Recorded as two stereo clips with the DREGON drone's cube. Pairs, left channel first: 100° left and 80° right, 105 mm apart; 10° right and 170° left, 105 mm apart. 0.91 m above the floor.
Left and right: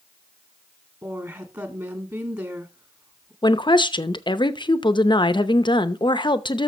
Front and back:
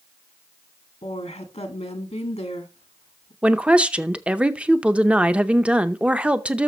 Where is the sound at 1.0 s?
20° right, 1.6 m.